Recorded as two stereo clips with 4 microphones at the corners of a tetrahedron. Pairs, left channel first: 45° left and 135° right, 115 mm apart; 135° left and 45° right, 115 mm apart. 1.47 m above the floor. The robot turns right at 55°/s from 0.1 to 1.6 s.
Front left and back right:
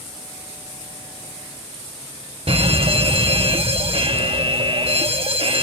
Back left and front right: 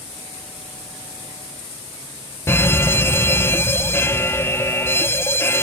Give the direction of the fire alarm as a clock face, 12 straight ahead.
5 o'clock.